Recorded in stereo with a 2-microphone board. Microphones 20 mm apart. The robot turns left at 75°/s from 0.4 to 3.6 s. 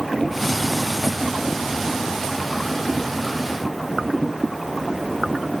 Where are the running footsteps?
I don't hear running footsteps.